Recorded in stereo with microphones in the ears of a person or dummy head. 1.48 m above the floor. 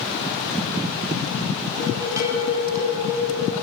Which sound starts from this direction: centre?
Dishes clattering, at 1.8 s.